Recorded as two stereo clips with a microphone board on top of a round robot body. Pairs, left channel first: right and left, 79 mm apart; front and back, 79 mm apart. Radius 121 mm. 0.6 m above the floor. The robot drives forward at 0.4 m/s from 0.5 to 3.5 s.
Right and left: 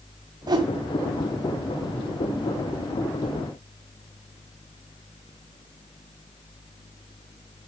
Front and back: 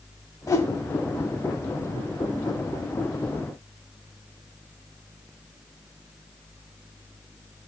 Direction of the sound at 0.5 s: 55° left.